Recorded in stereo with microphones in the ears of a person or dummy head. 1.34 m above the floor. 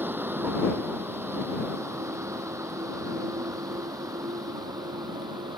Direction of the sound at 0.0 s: 10° right (ahead or behind).